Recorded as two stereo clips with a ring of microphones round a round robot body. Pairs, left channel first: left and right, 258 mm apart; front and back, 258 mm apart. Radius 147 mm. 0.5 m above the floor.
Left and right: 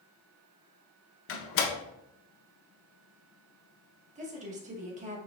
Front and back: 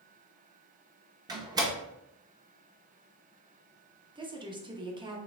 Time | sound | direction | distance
1.3 | a door slam | 105° left | 0.6 m
4.2 | a woman speaking | 125° right | 0.9 m